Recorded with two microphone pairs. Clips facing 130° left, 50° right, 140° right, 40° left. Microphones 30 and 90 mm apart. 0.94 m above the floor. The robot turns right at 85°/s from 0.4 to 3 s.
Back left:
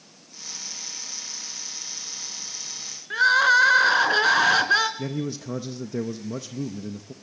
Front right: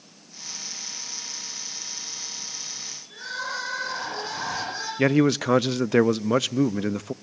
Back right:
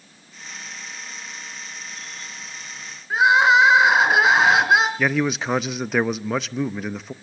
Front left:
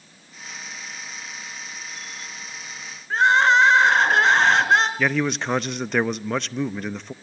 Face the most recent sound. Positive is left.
turn(degrees=-55)